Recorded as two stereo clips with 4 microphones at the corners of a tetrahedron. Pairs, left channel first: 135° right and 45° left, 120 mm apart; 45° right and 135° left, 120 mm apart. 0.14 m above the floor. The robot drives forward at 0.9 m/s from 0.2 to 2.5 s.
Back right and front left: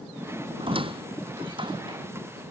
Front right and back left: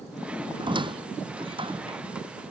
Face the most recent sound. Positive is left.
turn(degrees=95)